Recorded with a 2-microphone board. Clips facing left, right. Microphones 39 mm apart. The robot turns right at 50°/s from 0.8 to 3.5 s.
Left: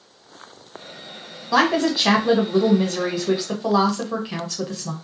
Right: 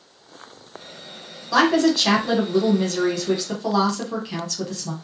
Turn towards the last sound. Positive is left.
turn(degrees=15)  # may be behind; listen again after turning